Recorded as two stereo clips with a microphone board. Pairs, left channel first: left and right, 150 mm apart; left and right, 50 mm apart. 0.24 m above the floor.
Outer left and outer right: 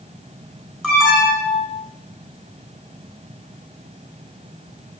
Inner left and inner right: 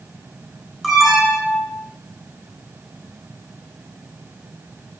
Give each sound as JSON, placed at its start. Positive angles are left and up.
{"t": 0.8, "sound": "an alarm", "side_deg": 0, "distance_m": 5.5}